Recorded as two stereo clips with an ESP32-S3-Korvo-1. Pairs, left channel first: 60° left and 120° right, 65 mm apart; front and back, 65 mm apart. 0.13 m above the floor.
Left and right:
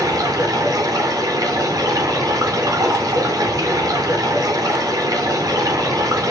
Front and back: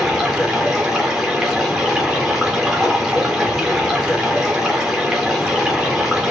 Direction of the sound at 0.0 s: 95° right.